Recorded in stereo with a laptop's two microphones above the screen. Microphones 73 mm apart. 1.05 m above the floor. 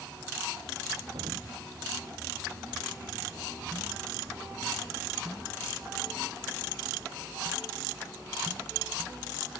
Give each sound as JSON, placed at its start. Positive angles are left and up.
{"t": 1.1, "sound": "an explosion", "side_deg": -85}